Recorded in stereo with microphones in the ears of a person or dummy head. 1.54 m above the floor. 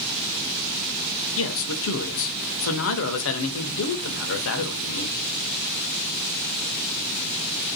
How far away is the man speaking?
About 0.7 m.